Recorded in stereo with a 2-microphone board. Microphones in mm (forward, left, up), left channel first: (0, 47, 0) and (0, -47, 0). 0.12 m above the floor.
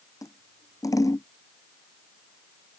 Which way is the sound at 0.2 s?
40° left (ahead or behind).